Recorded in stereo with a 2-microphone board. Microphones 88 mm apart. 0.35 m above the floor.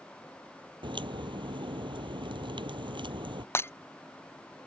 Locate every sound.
0.8 s a crack: 75° right (ahead or behind)
3.5 s breaking glass: 30° left (ahead or behind)